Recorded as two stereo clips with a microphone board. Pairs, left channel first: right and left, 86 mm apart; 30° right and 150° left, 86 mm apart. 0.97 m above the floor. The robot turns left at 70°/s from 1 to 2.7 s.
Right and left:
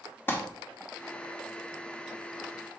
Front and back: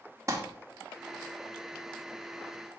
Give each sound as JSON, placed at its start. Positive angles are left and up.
{"t": 0.3, "sound": "crumpling", "azimuth_deg": -155, "distance_m": 2.0}